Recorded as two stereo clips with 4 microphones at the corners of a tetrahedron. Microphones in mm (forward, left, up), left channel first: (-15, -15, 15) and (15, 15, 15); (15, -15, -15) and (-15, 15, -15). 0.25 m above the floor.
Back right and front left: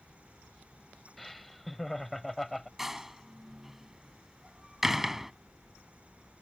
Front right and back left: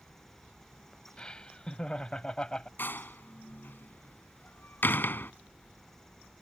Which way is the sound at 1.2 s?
50° right.